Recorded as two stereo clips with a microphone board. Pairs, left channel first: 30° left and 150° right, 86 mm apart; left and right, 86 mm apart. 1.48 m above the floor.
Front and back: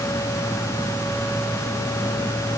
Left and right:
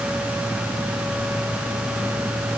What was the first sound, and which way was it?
Only background noise.